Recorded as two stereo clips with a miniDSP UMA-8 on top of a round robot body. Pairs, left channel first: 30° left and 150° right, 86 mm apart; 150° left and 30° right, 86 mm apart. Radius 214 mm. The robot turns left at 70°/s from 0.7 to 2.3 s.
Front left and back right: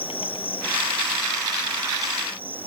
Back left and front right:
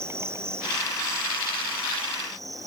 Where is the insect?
30° left; by 2.7 s 80° right.